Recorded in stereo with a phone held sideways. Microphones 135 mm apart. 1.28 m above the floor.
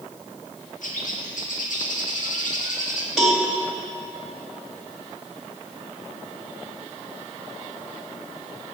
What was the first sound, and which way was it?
A bird, 75° left (ahead or behind).